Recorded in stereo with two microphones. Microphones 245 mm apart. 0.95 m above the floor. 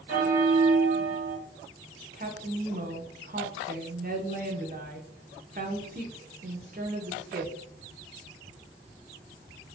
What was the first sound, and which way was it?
A bell, 60° right (ahead or behind).